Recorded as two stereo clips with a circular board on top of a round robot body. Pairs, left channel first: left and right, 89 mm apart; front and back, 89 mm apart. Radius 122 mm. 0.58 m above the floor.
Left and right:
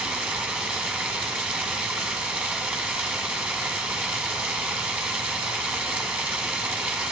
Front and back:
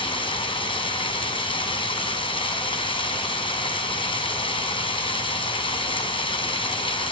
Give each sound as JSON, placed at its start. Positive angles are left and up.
{"t": 0.0, "sound": "running water", "azimuth_deg": -20, "distance_m": 1.8}